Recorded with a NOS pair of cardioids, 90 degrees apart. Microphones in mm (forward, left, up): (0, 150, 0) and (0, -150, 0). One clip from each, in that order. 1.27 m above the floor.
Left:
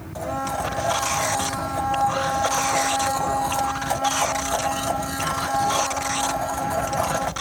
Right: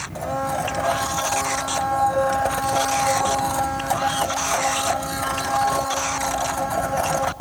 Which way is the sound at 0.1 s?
10° right.